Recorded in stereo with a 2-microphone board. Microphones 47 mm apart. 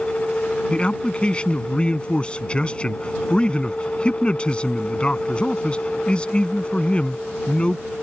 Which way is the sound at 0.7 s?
25° left (ahead or behind).